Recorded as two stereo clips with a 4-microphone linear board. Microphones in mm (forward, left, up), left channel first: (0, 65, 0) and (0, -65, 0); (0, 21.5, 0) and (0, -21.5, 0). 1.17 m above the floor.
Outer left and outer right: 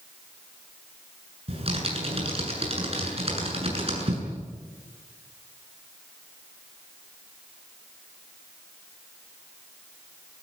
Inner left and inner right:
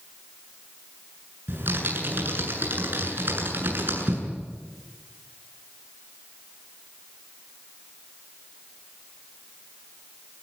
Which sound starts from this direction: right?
Typing on a keyboard, at 1.5 s.